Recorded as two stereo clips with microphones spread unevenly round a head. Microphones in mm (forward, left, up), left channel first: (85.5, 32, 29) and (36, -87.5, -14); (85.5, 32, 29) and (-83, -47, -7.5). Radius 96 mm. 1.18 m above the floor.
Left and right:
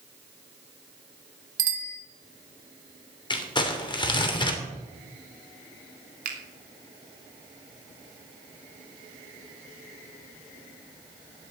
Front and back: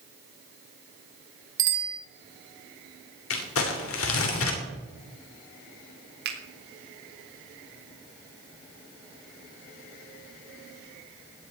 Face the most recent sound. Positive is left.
turn(degrees=-120)